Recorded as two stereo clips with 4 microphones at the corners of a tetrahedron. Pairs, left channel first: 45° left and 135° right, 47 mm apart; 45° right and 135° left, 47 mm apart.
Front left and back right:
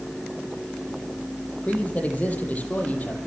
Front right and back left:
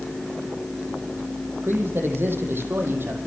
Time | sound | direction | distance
1.6 | a man speaking | 105° left | 6.5 m